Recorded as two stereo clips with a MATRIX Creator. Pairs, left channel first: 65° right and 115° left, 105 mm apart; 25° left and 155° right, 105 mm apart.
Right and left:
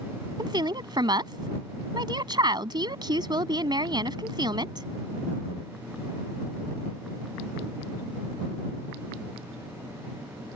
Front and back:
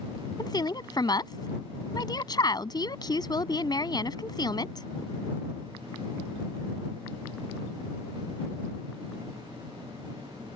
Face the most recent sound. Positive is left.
turn(degrees=70)